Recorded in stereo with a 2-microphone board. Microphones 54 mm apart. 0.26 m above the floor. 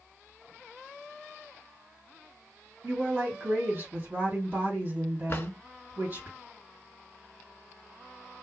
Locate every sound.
2.8 s a woman speaking: 40° right (ahead or behind), 2.0 m
5.3 s a drawer: 40° left (ahead or behind), 0.6 m